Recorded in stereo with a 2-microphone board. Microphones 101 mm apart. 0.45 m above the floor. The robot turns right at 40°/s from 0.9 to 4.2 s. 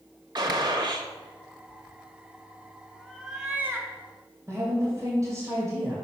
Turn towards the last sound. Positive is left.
turn(degrees=-30)  # may be behind; listen again after turning